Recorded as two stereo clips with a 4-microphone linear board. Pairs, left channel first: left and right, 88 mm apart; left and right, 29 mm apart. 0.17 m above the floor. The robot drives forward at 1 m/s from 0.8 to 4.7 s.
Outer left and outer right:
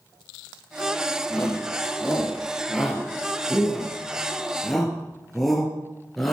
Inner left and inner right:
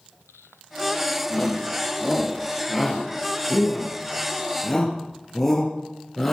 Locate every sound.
1.3 s a shout: centre (ahead or behind), 6.5 m